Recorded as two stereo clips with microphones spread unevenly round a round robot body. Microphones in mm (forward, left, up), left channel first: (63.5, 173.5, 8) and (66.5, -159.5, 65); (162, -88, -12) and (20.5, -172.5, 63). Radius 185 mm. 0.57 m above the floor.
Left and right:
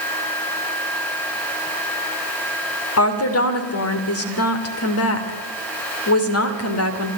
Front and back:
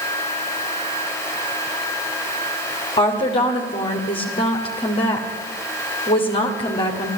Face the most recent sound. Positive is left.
turn(degrees=65)